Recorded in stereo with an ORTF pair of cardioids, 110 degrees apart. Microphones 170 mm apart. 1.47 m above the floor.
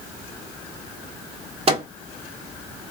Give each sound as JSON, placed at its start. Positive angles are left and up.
{"t": 1.7, "sound": "a microwave", "azimuth_deg": -40, "distance_m": 1.4}